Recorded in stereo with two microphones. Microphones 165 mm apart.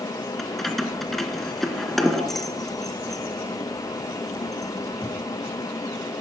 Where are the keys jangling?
Centre (ahead or behind), 0.9 m.